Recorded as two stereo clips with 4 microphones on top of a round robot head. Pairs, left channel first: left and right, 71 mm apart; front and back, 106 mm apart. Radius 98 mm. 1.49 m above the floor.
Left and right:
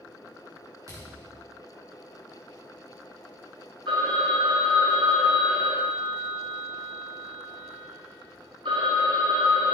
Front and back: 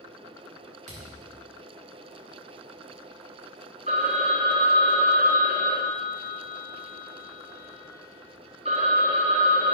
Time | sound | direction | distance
0.9 | a thud | 155° right | 1.4 m
3.9 | a phone ringing | 135° right | 0.9 m